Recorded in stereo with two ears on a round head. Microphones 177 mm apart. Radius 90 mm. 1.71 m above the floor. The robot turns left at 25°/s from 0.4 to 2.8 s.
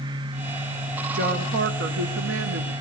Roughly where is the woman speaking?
Ahead right.